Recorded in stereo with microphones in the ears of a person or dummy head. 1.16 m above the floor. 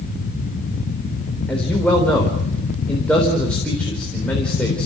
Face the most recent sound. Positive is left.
turn(degrees=5)  # may be behind; listen again after turning